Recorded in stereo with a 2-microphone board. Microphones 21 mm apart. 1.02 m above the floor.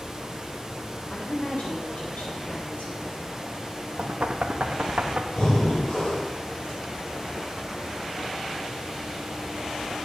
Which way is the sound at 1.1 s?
60° left (ahead or behind).